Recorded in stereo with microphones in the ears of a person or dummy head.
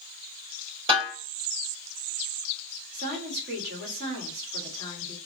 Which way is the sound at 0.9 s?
35° right (ahead or behind).